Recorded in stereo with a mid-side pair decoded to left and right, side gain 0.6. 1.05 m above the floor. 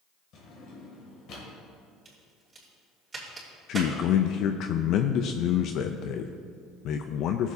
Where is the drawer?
55° left, 2.5 m.